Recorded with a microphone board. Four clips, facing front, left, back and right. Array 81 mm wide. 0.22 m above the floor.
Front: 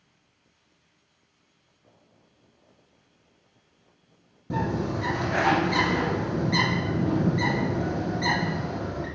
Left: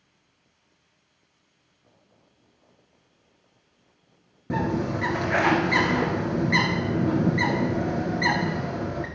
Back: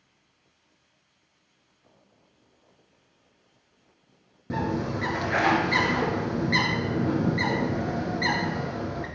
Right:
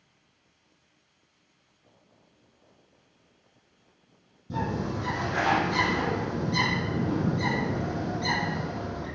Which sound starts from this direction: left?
A bird, at 4.5 s.